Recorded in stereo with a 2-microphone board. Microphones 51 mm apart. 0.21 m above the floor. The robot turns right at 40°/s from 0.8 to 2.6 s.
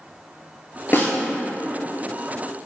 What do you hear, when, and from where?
0.9 s a snare drum: 45° left (ahead or behind), 0.6 m; by 1.1 s 35° left (ahead or behind), 0.6 m